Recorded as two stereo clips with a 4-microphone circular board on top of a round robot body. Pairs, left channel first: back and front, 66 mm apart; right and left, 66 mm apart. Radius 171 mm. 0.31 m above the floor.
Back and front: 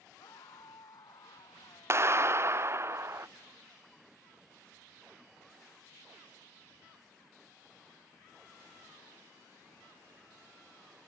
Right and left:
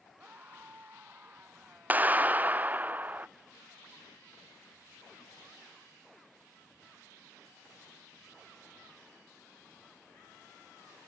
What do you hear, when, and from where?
0.2 s a scream: 155° left
1.9 s a clap: 35° left